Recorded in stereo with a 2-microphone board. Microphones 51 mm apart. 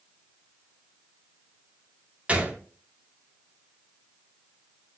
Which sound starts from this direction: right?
A gunshot, at 2.3 s.